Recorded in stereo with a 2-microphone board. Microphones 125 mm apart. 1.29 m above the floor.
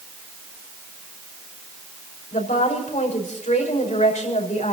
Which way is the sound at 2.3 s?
75° left (ahead or behind).